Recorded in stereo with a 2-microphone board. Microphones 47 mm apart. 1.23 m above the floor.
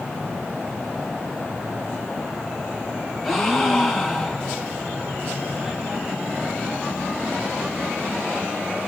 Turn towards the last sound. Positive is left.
turn(degrees=0)  # may be behind; listen again after turning